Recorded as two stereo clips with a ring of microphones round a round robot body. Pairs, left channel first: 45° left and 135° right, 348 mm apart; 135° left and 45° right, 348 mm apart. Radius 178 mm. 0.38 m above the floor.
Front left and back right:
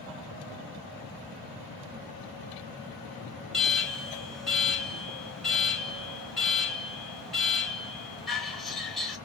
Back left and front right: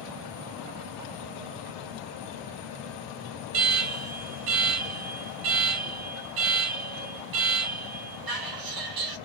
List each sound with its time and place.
3.5 s an alarm: 45° right, 1.0 m